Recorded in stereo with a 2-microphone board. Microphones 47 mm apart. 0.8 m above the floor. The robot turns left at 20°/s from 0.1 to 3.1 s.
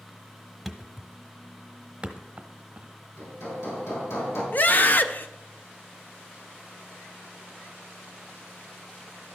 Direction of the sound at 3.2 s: 90° left.